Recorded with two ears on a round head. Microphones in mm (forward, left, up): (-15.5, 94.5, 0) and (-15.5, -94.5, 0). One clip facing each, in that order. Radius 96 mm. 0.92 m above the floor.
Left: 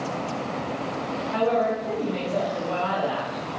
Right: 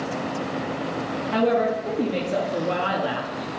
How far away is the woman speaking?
About 1.3 m.